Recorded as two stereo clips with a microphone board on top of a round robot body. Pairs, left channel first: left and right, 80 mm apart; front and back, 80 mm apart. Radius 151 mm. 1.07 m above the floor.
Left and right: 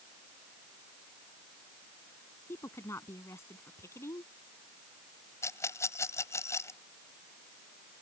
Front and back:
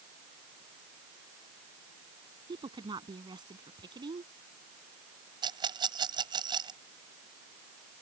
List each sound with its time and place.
2.5 s a woman speaking: 150° left
5.4 s a rattle: 150° left